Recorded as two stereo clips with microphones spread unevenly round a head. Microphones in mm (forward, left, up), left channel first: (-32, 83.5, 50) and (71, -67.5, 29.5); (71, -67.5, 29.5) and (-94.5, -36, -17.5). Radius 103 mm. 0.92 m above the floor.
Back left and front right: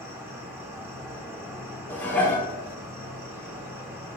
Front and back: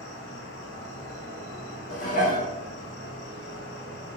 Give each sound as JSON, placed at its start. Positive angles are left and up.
{"t": 0.0, "sound": "an insect", "azimuth_deg": 10, "distance_m": 0.9}
{"t": 1.9, "sound": "dishes clattering", "azimuth_deg": 45, "distance_m": 0.7}